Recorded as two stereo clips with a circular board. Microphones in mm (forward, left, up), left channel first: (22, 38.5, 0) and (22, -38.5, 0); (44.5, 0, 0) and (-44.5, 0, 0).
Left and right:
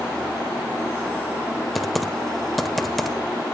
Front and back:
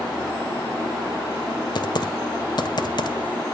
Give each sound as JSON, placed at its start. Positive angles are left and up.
{"t": 1.8, "sound": "typing on a keyboard", "azimuth_deg": 0, "distance_m": 1.2}